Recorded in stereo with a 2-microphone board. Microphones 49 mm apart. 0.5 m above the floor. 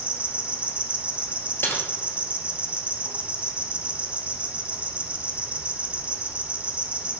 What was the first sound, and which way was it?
An insect, 30° right (ahead or behind).